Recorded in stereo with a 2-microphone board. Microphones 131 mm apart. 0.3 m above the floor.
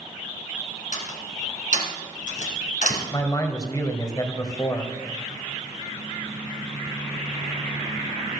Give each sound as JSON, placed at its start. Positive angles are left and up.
{"t": 0.9, "sound": "a door slam", "side_deg": 65, "distance_m": 2.5}
{"t": 3.1, "sound": "a man speaking", "side_deg": 25, "distance_m": 1.6}